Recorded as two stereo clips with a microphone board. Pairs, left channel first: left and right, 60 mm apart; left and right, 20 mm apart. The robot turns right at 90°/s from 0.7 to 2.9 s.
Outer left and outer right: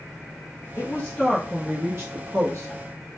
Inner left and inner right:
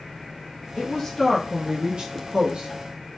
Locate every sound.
0.8 s a woman speaking: 125° left, 0.8 m; by 2.7 s 60° right, 0.8 m